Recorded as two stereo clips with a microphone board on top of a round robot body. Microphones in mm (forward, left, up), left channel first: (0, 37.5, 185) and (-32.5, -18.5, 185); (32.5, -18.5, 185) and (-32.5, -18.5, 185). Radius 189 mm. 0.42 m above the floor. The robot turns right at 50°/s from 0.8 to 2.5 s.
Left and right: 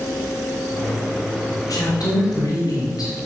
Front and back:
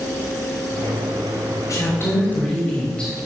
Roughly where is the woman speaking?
Ahead left.